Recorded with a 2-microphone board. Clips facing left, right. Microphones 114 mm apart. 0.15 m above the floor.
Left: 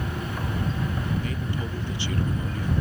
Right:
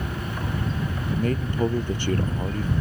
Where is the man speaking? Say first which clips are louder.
Right 4 dB; 50° right (ahead or behind).